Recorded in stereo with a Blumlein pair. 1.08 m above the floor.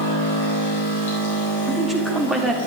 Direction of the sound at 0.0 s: 60° left.